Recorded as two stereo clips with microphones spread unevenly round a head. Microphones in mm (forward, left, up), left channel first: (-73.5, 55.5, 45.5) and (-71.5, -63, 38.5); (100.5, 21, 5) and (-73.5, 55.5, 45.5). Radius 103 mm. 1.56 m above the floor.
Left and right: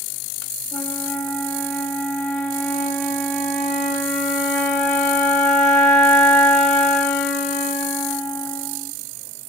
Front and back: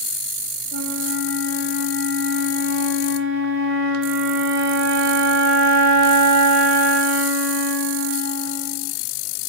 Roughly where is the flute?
Behind left.